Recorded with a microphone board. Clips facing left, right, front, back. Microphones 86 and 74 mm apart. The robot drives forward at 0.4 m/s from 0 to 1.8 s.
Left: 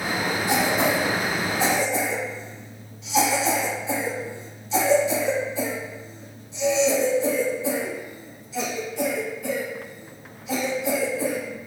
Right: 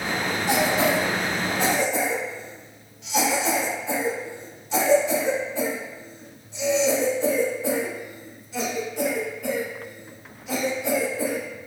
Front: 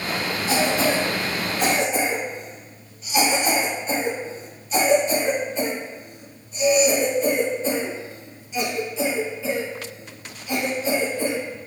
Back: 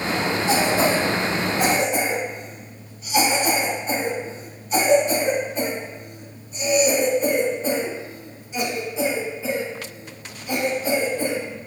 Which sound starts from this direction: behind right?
A cough, at 0.5 s.